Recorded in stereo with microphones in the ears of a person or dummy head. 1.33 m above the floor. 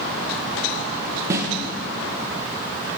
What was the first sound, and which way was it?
A snare drum, 20° right (ahead or behind).